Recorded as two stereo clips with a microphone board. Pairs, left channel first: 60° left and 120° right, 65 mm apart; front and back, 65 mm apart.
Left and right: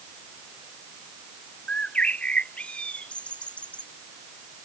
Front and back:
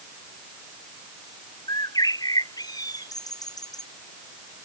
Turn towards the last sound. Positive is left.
turn(degrees=-15)